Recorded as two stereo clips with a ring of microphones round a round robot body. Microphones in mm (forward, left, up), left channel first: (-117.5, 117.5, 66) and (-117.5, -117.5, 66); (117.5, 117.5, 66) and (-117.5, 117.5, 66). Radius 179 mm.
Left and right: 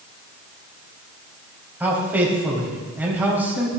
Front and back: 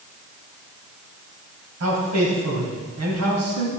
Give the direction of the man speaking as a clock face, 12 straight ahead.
6 o'clock.